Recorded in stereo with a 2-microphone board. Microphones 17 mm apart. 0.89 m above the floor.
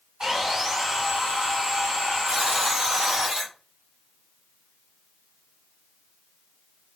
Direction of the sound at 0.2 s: 55° right (ahead or behind).